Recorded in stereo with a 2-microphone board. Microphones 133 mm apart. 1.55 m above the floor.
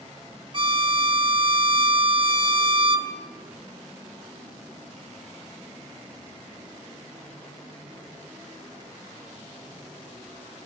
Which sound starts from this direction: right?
A violin, at 0.5 s.